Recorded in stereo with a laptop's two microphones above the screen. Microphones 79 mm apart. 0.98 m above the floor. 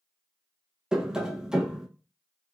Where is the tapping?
10° right (ahead or behind), 0.6 m.